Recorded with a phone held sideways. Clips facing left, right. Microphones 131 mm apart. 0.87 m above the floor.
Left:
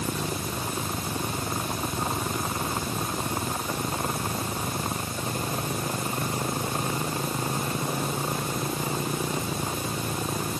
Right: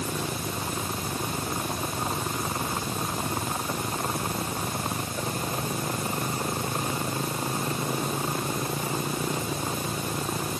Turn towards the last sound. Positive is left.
No sound to turn to.